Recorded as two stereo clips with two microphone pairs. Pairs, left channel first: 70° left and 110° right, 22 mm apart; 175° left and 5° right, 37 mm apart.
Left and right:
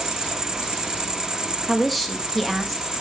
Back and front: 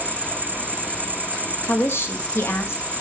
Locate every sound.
0.0 s an insect: 45° right, 1.2 m
1.7 s a woman speaking: 160° left, 1.7 m